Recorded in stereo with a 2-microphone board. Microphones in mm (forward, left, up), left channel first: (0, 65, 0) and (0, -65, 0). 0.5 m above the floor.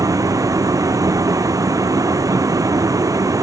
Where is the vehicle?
25° right (ahead or behind).